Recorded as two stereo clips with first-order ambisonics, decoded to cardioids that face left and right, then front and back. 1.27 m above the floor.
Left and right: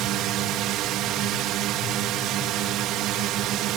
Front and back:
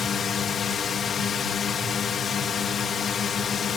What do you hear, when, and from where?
0.0 s a drone: 65° right